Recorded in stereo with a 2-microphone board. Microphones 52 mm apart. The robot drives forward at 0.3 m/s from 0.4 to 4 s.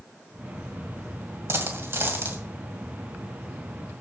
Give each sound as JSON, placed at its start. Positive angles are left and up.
{"t": 1.5, "sound": "a dropped coin", "side_deg": -55, "distance_m": 2.0}